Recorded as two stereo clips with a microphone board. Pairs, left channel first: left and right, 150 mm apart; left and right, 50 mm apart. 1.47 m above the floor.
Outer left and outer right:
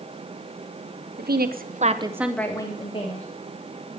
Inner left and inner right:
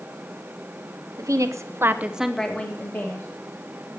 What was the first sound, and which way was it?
A woman speaking, 80° right.